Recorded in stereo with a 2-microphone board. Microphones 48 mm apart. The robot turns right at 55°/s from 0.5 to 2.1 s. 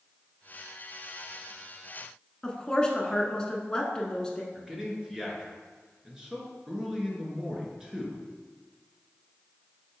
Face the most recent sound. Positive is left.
turn(degrees=-15)  # may be behind; listen again after turning